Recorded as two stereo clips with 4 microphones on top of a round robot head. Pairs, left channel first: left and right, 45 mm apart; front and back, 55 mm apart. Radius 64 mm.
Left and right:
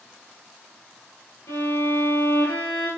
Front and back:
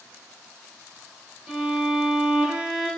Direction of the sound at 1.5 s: 110° left.